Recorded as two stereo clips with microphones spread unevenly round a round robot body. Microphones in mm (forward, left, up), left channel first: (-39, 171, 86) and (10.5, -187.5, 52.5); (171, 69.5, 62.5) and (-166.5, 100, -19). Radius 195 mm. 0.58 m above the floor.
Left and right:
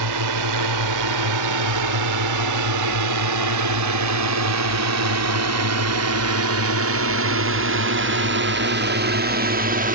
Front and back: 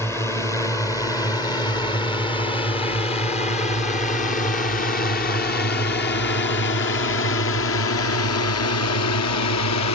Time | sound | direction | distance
0.0 | a drone | 95° right | ?